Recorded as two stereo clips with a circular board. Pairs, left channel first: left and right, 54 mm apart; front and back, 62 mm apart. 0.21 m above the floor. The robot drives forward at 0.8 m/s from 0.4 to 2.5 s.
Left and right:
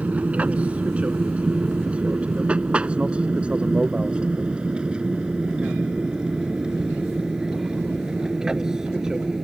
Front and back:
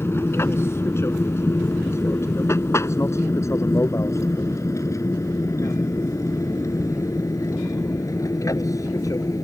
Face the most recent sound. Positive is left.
turn(degrees=-15)